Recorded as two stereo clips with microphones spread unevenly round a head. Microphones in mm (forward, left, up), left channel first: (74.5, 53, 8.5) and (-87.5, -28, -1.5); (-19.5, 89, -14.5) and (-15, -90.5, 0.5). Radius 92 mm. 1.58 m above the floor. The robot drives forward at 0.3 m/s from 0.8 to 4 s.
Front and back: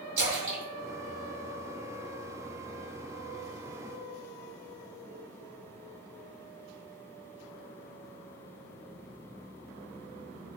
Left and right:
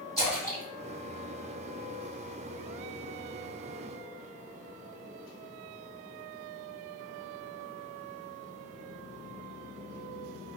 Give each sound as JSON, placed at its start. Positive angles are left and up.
{"t": 0.2, "sound": "a splash", "azimuth_deg": -175, "distance_m": 1.6}